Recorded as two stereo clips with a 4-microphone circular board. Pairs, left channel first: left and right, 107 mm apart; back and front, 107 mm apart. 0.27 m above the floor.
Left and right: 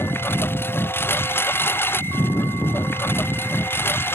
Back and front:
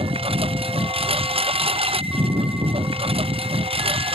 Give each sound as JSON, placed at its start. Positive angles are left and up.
{"t": 0.0, "sound": "a lawn mower", "azimuth_deg": 20}